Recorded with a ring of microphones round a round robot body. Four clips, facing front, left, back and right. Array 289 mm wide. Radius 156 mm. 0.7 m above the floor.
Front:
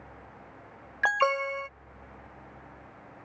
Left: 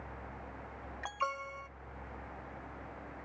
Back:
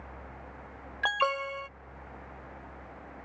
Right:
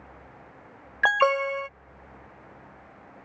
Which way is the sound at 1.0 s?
80° right.